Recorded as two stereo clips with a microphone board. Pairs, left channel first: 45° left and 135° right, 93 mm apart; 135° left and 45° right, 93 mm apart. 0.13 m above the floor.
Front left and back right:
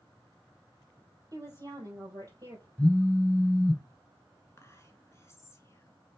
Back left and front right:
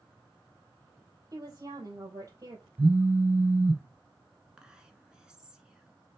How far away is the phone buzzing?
About 0.5 m.